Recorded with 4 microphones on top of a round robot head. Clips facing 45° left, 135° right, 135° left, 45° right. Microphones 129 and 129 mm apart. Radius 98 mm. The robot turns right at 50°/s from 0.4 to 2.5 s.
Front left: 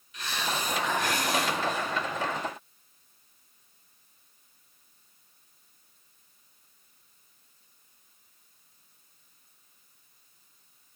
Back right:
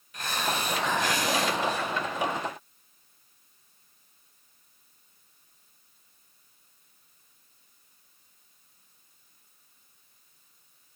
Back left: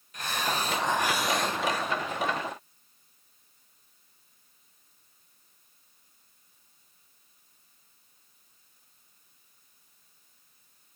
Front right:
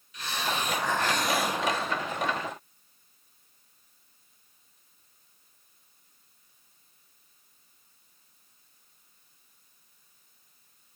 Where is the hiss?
Straight behind, 2 m; by 1.9 s 105° right, 2 m.